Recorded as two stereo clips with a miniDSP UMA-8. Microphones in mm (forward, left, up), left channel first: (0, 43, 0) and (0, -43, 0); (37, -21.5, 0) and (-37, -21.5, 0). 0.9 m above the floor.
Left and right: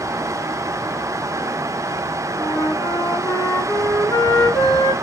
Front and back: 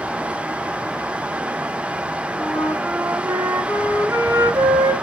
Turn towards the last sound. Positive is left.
turn(degrees=135)